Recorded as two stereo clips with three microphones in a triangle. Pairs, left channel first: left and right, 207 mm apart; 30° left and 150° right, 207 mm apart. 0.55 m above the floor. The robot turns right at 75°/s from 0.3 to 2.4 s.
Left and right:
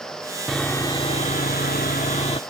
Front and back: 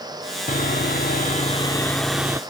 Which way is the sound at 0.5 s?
Straight ahead.